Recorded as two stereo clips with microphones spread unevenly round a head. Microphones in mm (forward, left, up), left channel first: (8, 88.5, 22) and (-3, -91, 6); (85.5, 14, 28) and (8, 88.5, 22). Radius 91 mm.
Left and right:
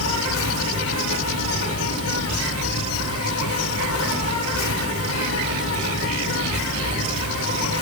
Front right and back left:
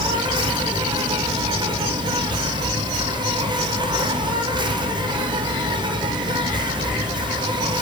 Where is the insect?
95° left, 5 m.